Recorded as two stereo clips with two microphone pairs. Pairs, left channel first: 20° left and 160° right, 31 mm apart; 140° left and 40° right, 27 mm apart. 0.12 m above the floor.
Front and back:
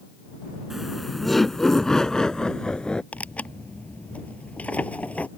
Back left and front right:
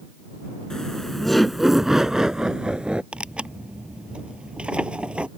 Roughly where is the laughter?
Behind left.